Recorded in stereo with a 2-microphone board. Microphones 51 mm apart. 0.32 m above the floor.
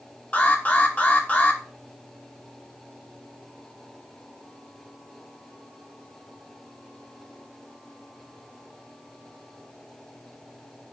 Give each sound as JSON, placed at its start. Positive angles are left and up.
{"t": 0.3, "sound": "an alarm", "side_deg": 30, "distance_m": 0.7}